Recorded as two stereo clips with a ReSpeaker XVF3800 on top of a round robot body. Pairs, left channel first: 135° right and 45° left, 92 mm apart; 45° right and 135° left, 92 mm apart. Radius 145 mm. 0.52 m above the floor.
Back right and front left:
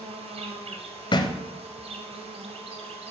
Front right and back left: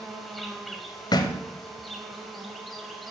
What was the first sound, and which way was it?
An insect, 45° left.